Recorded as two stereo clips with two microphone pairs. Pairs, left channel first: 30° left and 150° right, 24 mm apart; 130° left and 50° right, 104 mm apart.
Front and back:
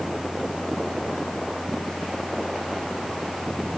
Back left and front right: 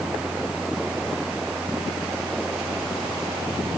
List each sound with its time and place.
Only background noise.